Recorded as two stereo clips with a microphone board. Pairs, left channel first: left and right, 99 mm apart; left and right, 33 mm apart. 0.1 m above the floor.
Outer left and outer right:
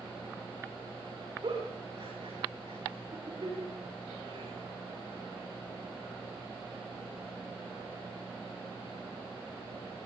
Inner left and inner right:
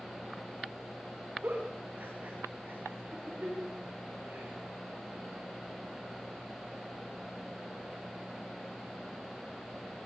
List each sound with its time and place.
1.4 s a giggle: 50° right (ahead or behind), 10 m